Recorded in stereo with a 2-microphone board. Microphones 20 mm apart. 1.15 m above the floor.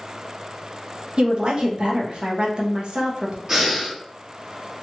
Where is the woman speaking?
55° right (ahead or behind), 0.9 m.